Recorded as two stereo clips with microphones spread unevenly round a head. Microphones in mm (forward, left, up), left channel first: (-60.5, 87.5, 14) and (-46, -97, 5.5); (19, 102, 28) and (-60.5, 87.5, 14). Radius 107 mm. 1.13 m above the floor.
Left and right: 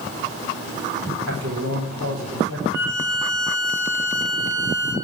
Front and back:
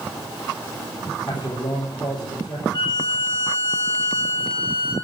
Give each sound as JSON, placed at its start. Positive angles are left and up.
{"t": 1.3, "sound": "a man speaking", "azimuth_deg": -55, "distance_m": 4.5}
{"t": 2.7, "sound": "a violin", "azimuth_deg": -55, "distance_m": 5.5}